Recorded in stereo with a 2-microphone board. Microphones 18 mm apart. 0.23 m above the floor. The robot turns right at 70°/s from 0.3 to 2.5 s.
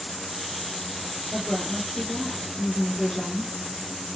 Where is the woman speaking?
80° left, 3 m; by 3.5 s 165° left, 3 m.